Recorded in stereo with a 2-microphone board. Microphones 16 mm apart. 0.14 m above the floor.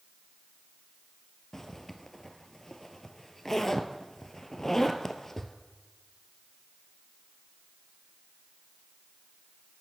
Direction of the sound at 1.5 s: 25° left (ahead or behind).